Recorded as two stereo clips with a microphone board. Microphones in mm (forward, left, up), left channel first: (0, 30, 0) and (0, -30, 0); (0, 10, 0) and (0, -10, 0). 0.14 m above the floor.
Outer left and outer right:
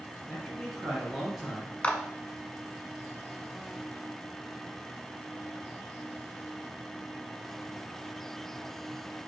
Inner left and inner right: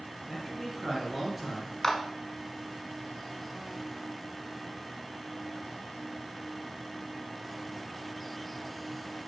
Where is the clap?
20° left (ahead or behind), 0.8 m.